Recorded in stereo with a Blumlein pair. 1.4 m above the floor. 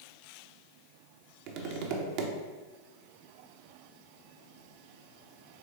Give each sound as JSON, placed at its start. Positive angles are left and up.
{"t": 1.5, "sound": "tapping", "azimuth_deg": -45, "distance_m": 0.6}